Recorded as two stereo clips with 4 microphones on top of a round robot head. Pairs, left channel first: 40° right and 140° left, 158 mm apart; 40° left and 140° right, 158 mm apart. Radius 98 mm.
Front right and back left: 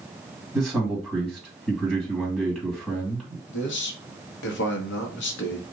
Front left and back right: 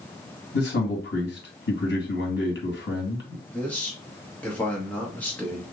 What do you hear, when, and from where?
0.5 s a man speaking: 45° left, 2.5 m
3.5 s a man speaking: 40° right, 1.1 m